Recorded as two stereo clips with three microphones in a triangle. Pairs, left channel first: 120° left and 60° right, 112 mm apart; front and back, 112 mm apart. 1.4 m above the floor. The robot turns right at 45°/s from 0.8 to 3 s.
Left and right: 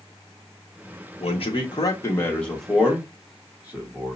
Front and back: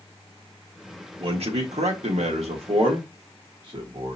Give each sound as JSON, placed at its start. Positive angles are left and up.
{"t": 1.2, "sound": "a man speaking", "azimuth_deg": 145, "distance_m": 1.2}